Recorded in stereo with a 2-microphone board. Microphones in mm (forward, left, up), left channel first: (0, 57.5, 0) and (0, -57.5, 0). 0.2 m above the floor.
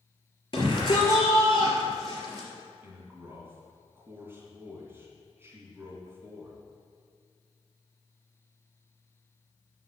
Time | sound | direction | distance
0.5 | a shout | 45° left (ahead or behind) | 3.5 m
2.8 | a man speaking | 20° right (ahead or behind) | 2.5 m